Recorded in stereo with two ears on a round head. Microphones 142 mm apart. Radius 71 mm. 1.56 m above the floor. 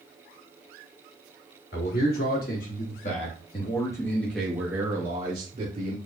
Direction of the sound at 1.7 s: 65° left (ahead or behind).